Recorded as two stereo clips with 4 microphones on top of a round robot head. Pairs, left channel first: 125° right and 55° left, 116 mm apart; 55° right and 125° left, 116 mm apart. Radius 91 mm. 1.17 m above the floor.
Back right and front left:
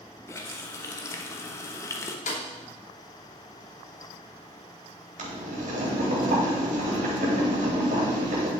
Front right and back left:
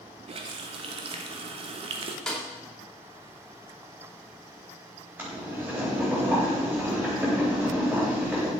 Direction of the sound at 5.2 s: 55° left.